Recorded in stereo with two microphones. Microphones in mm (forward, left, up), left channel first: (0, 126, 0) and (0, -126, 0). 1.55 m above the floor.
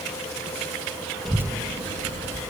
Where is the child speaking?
Centre (ahead or behind), 0.8 m; by 2.4 s 30° right (ahead or behind), 2 m.